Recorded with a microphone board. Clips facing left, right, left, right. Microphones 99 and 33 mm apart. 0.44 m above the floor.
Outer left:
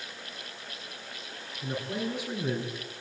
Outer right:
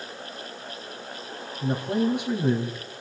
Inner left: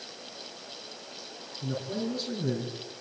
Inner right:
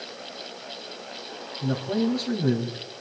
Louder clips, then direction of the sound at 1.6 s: Outer right 8 dB, inner right 7 dB; 60° right (ahead or behind).